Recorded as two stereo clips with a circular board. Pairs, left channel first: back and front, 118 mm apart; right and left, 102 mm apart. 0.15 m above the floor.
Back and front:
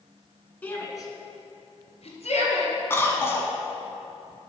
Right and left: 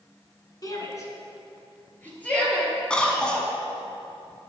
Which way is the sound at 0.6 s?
110° right.